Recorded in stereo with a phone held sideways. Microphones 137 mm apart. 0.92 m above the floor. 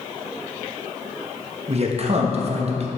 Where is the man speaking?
50° right (ahead or behind), 0.9 m.